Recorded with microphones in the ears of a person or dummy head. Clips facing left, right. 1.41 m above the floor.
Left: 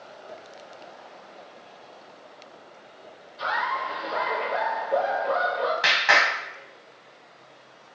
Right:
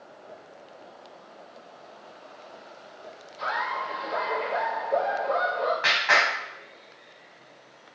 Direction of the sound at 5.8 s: 45° left (ahead or behind).